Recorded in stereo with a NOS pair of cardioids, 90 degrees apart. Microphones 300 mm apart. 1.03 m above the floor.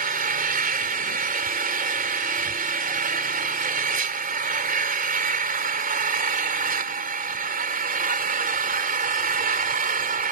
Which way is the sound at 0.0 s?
30° right.